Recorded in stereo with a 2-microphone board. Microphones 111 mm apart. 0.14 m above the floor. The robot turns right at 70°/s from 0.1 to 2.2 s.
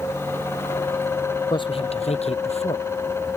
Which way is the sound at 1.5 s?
45° left (ahead or behind).